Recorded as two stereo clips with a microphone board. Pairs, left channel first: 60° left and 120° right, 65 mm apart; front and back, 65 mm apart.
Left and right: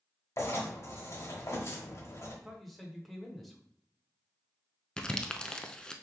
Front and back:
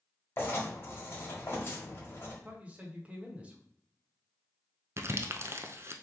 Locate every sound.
0.4 s writing: 40° left, 1.3 m
2.4 s a man speaking: 145° left, 1.0 m
5.0 s crumpling: 140° left, 0.5 m